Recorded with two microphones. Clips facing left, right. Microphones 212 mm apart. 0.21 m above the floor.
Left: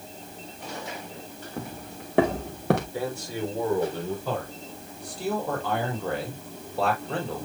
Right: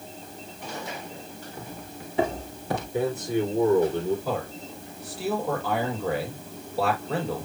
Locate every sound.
1.6 s footsteps: 75° left (ahead or behind), 3 m; by 2.8 s 70° left (ahead or behind), 2 m
2.9 s a man speaking: 20° right (ahead or behind), 6 m
4.2 s a man speaking: 5° right (ahead or behind), 6.5 m